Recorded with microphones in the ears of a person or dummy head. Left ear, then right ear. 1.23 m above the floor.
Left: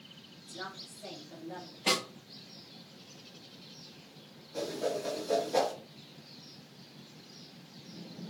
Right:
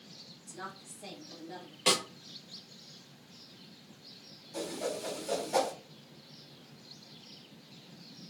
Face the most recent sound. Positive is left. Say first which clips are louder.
# left 3 dB
turn(degrees=-70)  # may be behind; listen again after turning